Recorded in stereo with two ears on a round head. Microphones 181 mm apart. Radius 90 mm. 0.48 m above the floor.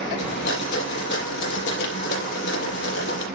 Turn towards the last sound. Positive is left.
turn(degrees=65)  # may be behind; listen again after turning